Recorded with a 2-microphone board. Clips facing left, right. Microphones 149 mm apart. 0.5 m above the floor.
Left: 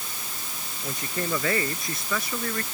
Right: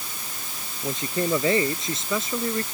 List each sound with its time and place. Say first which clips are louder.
0.8 s a man speaking: right 5 dB; 20° right (ahead or behind)